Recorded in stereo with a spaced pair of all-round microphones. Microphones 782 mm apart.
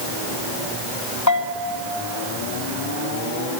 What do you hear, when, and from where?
1.3 s a bell: 20° left (ahead or behind), 1.2 m